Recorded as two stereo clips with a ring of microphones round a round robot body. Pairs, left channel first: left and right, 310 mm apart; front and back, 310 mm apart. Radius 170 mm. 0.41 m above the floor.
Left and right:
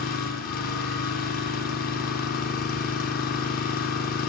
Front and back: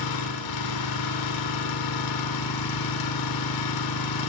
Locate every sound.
0.0 s an engine running: 25° left, 4 m